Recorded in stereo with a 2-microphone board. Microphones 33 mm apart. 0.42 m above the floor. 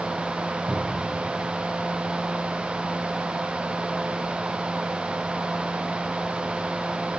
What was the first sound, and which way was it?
A cupboard door, 65° right (ahead or behind).